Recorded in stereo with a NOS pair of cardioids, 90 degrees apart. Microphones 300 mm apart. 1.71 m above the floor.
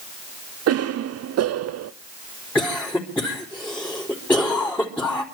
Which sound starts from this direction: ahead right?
A cough, at 0.7 s.